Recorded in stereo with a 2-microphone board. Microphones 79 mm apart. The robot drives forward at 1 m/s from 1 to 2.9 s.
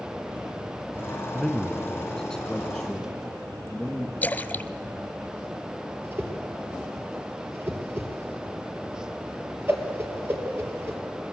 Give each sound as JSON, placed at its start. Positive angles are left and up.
{"t": 1.3, "sound": "a man speaking", "side_deg": 5, "distance_m": 1.4}
{"t": 4.2, "sound": "a splash", "side_deg": 25, "distance_m": 0.7}
{"t": 6.0, "sound": "a whoosh", "side_deg": -30, "distance_m": 3.0}